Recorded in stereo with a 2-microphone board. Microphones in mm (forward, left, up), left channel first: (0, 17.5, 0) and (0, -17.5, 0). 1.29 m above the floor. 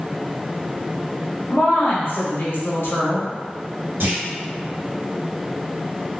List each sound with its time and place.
1.5 s a woman speaking: 80° left, 1.4 m
4.0 s a clunk: 75° right (ahead or behind), 1.9 m